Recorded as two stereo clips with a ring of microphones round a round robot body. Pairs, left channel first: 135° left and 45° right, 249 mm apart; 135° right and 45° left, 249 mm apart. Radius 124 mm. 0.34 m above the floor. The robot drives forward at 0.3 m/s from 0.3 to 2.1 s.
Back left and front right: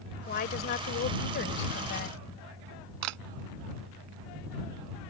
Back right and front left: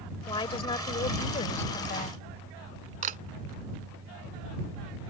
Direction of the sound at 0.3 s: 160° left.